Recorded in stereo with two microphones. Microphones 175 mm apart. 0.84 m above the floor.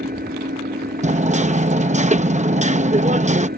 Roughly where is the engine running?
Right.